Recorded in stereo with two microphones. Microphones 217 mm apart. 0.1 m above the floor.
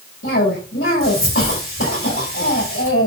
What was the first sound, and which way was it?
A cough, 65° left (ahead or behind).